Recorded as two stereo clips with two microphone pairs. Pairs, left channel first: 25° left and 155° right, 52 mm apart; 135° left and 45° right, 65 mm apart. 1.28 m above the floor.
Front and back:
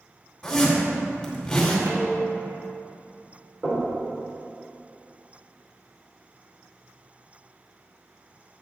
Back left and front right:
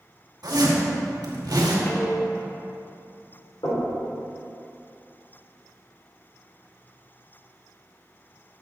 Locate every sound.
0.4 s a zipper: 55° right, 1.9 m
1.9 s dishes clattering: 175° right, 1.2 m
3.6 s knocking: 140° left, 2.5 m